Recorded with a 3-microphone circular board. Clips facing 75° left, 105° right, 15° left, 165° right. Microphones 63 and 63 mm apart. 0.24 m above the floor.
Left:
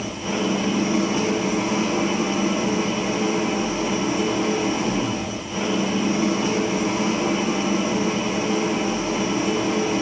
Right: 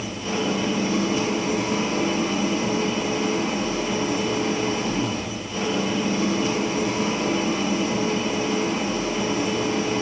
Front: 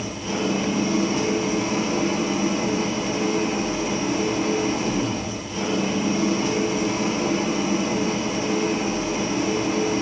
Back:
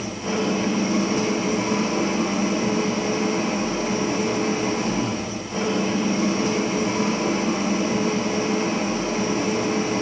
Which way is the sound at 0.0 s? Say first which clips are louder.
Left 1 dB, back 1 dB; 140° left.